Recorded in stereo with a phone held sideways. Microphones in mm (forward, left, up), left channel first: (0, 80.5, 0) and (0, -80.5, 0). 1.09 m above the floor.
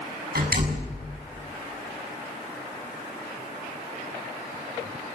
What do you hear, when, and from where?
0.3 s a door slam: 75° right (ahead or behind), 7 m